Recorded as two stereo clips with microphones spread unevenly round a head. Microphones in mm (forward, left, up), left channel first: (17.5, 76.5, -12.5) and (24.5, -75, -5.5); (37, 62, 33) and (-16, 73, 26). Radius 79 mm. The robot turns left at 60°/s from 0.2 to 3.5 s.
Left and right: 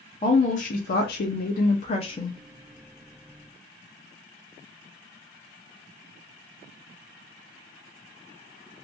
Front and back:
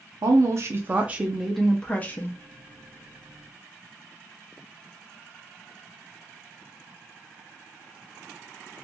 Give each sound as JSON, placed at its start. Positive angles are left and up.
{"t": 0.2, "sound": "a woman speaking", "azimuth_deg": 150, "distance_m": 0.6}